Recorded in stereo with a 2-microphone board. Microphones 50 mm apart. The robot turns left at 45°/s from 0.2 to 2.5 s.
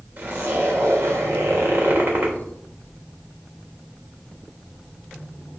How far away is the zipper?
About 3.5 m.